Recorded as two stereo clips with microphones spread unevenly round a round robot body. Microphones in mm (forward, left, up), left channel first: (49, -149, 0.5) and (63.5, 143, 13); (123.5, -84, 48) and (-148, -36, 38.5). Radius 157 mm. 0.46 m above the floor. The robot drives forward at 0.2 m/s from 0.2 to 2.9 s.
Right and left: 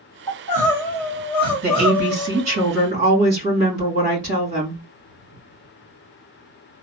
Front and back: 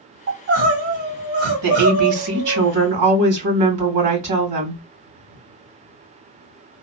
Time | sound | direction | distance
0.3 | crying | 175° right | 1.7 m
1.6 | a woman speaking | 155° left | 2.5 m